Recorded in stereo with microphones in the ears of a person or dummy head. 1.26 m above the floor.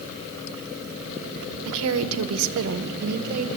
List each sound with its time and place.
1.6 s a woman speaking: 65° right (ahead or behind), 0.8 m; by 3.5 s 45° right (ahead or behind), 1.1 m